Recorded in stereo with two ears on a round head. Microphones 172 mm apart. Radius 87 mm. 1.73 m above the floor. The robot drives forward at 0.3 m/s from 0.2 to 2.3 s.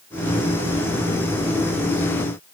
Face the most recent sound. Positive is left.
No sound to turn to.